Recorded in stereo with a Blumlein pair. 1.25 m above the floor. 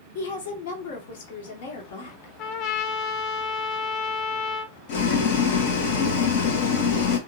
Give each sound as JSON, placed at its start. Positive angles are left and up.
{"t": 0.1, "sound": "a woman speaking", "azimuth_deg": 50, "distance_m": 1.6}
{"t": 2.4, "sound": "a trumpet", "azimuth_deg": 35, "distance_m": 0.6}
{"t": 4.9, "sound": "boiling", "azimuth_deg": 50, "distance_m": 1.1}